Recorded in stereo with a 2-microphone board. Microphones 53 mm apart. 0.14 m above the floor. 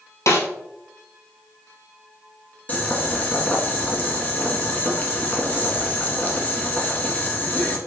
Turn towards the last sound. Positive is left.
turn(degrees=30)  # may be behind; listen again after turning